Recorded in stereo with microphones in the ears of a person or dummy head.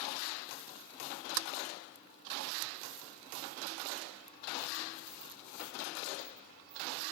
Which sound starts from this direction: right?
A sliding door, at 1.4 s.